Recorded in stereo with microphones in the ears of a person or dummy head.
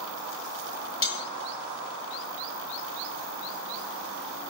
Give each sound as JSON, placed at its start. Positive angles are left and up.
{"t": 1.0, "sound": "cutlery clinking", "side_deg": 25, "distance_m": 2.5}